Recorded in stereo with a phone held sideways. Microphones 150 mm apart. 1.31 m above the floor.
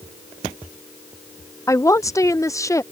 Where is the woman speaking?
20° left (ahead or behind).